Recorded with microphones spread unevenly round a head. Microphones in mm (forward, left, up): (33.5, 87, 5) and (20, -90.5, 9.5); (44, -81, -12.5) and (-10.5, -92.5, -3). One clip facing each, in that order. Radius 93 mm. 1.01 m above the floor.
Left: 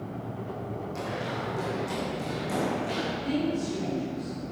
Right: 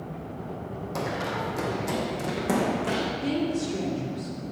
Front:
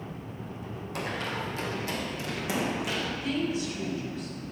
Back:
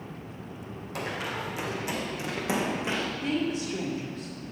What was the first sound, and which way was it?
Running footsteps, 85° right.